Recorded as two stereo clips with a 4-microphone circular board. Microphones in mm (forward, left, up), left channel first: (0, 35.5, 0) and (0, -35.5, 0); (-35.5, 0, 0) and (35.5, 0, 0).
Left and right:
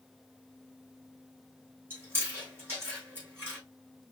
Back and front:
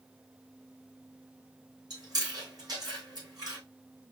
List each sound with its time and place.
1.9 s chewing: 30° right, 3.5 m